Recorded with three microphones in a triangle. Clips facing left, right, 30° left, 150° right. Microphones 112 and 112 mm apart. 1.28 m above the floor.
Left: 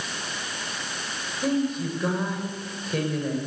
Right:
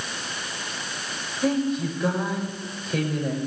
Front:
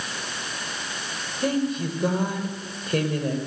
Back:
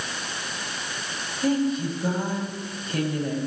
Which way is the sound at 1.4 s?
Straight ahead.